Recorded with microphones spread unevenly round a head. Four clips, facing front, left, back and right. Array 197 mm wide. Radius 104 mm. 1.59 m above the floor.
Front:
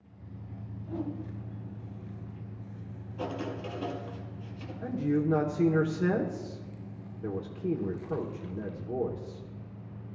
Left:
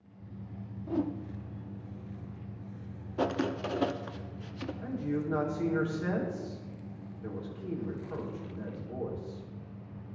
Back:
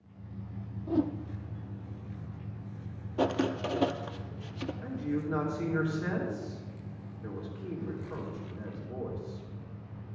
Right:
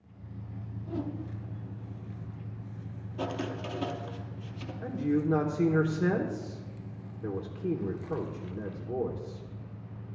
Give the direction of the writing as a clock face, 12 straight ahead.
7 o'clock.